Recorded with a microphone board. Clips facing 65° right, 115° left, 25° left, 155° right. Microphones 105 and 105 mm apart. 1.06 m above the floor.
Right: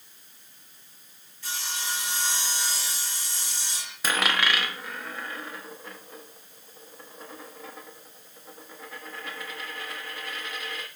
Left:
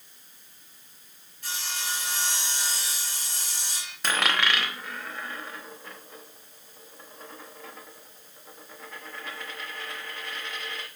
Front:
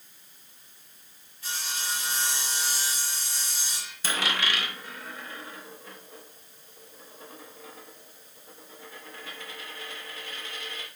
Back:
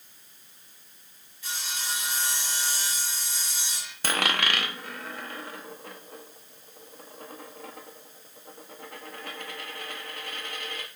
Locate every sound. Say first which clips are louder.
1.4 s sawing: even, front 1 dB; 80° left, 3 m
4.0 s a dropped coin: even, back 2 dB; 155° right, 0.6 m